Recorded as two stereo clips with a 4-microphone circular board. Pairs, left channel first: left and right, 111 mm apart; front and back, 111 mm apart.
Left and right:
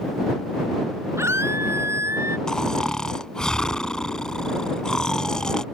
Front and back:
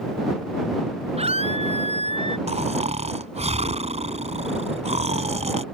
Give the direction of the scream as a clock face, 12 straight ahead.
5 o'clock.